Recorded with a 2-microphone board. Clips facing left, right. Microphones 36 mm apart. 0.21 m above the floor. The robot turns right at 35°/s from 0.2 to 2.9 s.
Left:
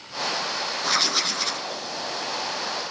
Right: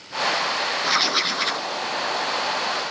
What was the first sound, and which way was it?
Writing, 15° right (ahead or behind).